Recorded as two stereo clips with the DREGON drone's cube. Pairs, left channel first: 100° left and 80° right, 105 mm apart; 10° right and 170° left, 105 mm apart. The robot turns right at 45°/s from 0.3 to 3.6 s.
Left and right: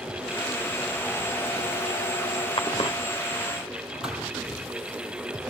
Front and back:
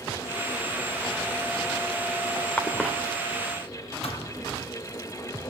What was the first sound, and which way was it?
A cough, 65° left.